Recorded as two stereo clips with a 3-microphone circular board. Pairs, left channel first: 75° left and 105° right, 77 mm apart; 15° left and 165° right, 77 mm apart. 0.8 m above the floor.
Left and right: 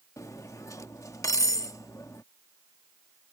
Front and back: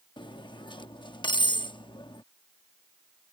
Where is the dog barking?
I don't hear a dog barking.